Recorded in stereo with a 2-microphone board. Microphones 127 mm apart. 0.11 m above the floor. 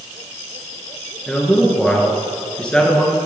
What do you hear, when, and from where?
1.3 s a man speaking: 10° left (ahead or behind), 1.2 m